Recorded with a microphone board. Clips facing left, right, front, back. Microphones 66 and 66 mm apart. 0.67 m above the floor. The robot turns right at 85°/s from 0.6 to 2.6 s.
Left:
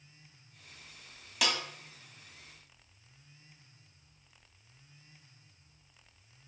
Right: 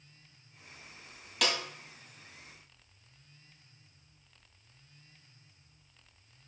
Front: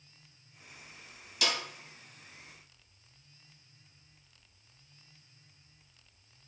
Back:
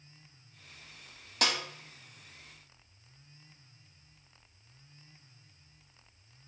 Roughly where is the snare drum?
Behind.